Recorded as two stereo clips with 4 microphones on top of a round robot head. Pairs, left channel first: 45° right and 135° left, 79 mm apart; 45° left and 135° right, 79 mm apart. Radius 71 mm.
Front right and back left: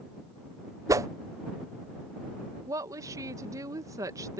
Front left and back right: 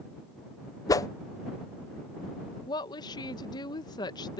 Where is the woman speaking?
85° left.